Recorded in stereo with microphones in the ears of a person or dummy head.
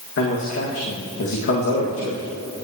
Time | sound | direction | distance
0.2 | a man speaking | 60° left (ahead or behind) | 1.8 m